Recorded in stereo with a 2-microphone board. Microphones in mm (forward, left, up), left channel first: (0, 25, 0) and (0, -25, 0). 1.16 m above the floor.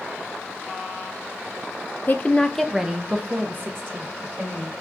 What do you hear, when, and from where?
2.1 s a woman speaking: 40° left (ahead or behind), 0.6 m; by 4.7 s 50° right (ahead or behind), 1.6 m